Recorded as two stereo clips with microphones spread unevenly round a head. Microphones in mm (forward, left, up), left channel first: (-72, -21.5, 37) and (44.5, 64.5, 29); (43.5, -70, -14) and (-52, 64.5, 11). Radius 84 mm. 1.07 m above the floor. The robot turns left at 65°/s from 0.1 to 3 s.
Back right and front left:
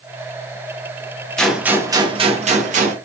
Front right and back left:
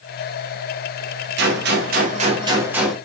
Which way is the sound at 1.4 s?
130° left.